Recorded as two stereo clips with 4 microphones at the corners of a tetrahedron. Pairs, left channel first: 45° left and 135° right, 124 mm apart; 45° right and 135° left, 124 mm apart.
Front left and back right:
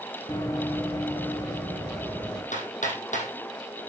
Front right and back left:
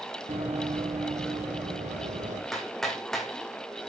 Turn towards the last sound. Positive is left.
turn(degrees=45)